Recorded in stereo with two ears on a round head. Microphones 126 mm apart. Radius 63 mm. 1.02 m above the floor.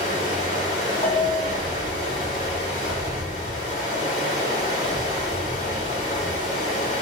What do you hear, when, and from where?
0.0 s running water: 55° left (ahead or behind), 3.5 m
1.0 s a bell: 50° left (ahead or behind), 2.5 m